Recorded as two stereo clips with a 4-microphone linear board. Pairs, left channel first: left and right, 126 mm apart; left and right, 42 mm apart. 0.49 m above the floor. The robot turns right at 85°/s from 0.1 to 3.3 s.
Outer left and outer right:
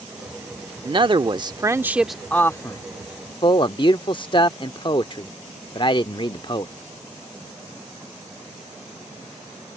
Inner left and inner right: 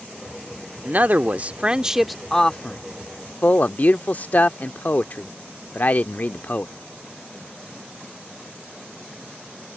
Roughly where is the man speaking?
Right.